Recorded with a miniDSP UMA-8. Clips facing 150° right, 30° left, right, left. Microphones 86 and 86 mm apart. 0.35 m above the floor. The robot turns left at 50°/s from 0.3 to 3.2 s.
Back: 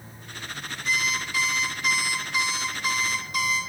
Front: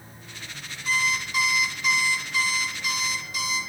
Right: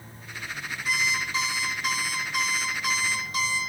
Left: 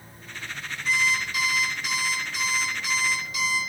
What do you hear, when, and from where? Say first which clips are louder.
0.8 s an alarm clock: front 2 dB, left 3 dB; 10° right, 1.6 m; by 3.6 s 130° right, 1.6 m